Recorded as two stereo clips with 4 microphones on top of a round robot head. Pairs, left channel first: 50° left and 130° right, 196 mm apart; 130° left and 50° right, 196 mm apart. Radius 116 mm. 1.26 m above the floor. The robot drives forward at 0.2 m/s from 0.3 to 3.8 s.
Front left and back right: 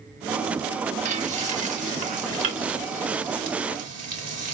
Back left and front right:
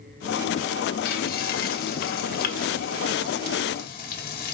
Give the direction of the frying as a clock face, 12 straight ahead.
6 o'clock.